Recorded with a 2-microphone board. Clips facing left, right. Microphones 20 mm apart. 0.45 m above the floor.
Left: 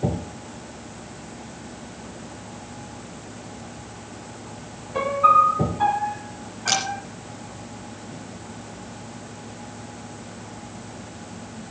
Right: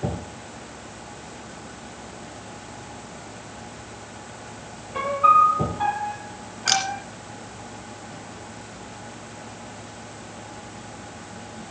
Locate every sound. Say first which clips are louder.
4.9 s a piano: even; centre (ahead or behind), 1.3 m
6.7 s a camera shutter: right 1 dB; 20° right (ahead or behind), 2.5 m